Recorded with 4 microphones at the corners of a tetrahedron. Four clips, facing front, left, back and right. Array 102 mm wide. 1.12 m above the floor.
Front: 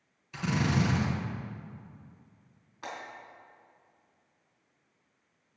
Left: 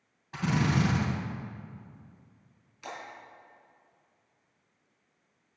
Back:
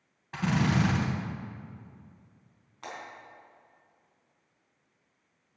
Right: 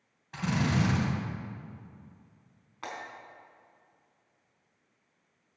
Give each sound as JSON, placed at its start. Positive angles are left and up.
{"t": 0.3, "sound": "a drill", "azimuth_deg": 170, "distance_m": 3.0}
{"t": 2.8, "sound": "breaking glass", "azimuth_deg": -85, "distance_m": 4.0}